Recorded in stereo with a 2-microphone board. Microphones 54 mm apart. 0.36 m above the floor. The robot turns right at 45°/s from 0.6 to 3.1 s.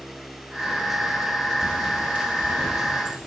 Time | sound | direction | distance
1.6 | a bird | 30° right (ahead or behind) | 1.4 m